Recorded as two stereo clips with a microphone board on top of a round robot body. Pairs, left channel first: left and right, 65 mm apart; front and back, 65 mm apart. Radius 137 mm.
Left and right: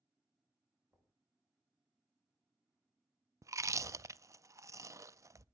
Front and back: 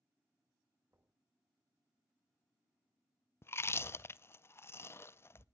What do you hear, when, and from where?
0.9 s knocking: 150° right, 5.5 m
3.4 s chewing: 50° right, 0.6 m